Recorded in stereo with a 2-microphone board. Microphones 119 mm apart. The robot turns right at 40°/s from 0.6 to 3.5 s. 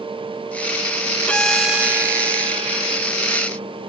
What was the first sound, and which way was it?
A violin, 170° left.